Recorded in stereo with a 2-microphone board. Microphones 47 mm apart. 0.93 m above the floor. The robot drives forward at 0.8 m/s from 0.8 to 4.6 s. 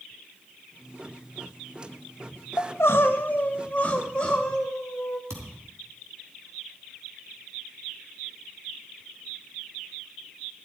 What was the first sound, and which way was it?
Crying, 75° left (ahead or behind).